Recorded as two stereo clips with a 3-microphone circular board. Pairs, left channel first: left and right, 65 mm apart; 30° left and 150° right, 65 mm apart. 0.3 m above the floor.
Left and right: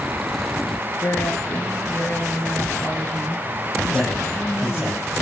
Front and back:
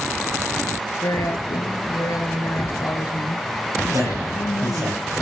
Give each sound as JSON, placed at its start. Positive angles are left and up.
{"t": 1.0, "sound": "a woman speaking", "azimuth_deg": 40, "distance_m": 5.0}
{"t": 3.9, "sound": "a man speaking", "azimuth_deg": -165, "distance_m": 9.5}